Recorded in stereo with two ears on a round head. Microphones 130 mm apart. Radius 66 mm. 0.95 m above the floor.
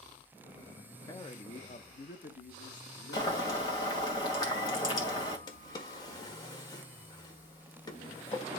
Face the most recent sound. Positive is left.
turn(degrees=25)  # may be behind; listen again after turning